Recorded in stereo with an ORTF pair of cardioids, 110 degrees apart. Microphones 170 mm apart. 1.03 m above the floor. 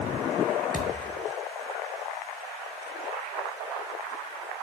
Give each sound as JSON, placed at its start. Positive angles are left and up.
{"t": 0.7, "sound": "a thud", "azimuth_deg": 0, "distance_m": 8.0}